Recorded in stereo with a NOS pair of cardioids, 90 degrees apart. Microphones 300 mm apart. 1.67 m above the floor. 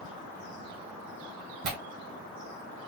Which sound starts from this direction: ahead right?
Tearing paper, at 1.6 s.